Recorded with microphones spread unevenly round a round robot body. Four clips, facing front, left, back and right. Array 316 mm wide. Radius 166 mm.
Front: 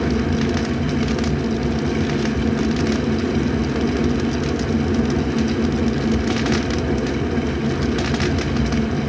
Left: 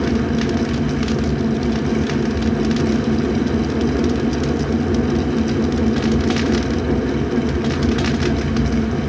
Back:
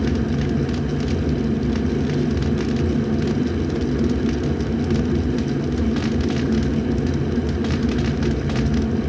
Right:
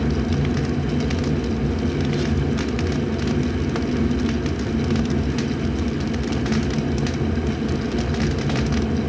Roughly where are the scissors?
I don't hear scissors.